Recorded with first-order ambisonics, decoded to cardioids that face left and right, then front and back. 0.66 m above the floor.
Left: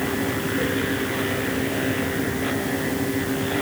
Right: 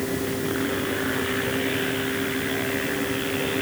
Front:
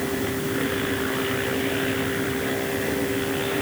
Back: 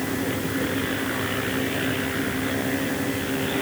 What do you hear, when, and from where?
Only background noise.